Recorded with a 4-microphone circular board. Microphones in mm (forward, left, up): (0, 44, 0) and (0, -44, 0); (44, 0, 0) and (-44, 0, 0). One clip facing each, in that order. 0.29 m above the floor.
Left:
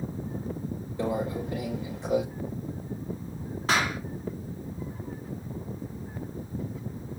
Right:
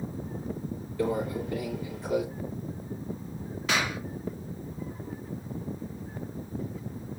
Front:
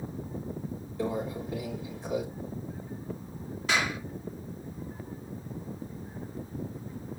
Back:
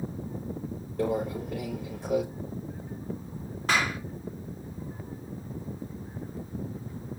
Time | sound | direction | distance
1.0 | a microwave | 155° left | 6 m
3.7 | a clap | 140° left | 2.5 m